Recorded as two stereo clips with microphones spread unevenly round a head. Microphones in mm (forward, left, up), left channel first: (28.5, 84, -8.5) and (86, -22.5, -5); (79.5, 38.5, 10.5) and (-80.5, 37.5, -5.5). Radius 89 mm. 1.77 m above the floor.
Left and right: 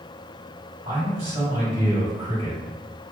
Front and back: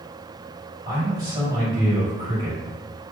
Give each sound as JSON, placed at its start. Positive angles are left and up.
{"t": 0.8, "sound": "a man speaking", "azimuth_deg": -120, "distance_m": 1.8}